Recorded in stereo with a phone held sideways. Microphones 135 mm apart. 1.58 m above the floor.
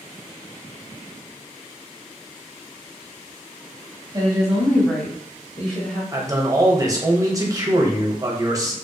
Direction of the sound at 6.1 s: 25° right (ahead or behind).